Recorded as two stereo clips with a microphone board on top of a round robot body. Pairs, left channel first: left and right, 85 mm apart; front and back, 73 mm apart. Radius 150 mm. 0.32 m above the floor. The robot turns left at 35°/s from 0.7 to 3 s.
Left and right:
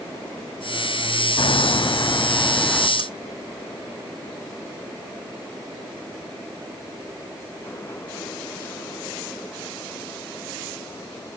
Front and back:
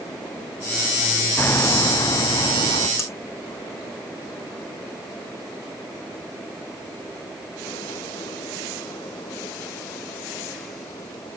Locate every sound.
1.4 s hammering: 65° left; by 2.9 s 10° left
3.0 s cutlery clinking: 50° right